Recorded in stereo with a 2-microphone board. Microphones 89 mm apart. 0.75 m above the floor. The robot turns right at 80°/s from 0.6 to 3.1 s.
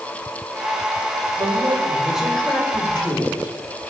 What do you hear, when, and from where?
1.4 s a man speaking: 70° right, 3 m; by 3.6 s 70° left, 3 m